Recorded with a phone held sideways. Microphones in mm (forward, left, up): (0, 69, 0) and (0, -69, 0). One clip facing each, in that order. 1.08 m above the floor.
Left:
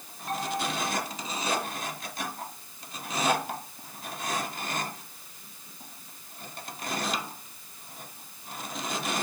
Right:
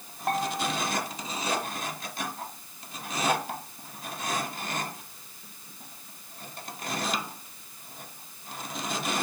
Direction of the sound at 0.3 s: 65° right (ahead or behind).